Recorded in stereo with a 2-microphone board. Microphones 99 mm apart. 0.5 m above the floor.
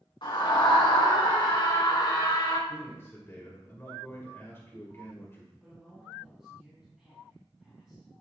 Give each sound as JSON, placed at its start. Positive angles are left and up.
{"t": 0.2, "sound": "a scream", "side_deg": 55, "distance_m": 4.5}
{"t": 2.7, "sound": "a man speaking", "side_deg": 25, "distance_m": 2.0}
{"t": 5.6, "sound": "a man speaking", "side_deg": -5, "distance_m": 3.0}